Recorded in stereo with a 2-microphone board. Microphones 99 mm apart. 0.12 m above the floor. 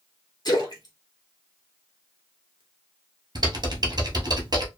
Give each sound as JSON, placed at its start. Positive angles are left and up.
{"t": 0.5, "sound": "a splash", "side_deg": 45, "distance_m": 1.1}
{"t": 3.4, "sound": "typing on a keyboard", "side_deg": -50, "distance_m": 1.1}